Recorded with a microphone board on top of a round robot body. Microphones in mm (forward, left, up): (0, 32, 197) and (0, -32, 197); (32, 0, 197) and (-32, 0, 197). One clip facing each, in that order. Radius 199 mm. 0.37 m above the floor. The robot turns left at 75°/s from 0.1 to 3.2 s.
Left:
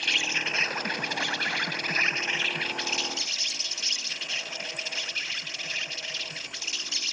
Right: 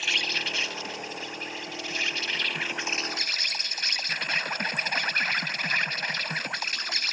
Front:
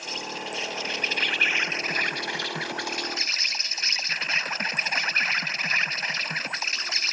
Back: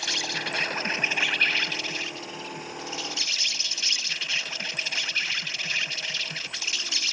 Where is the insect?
175° right; by 7.1 s 50° right.